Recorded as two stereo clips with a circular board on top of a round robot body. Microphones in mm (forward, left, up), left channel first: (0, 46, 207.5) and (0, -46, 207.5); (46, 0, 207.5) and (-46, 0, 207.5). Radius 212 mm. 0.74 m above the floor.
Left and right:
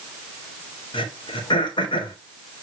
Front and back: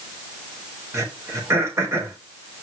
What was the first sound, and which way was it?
Throat clearing, 120° left.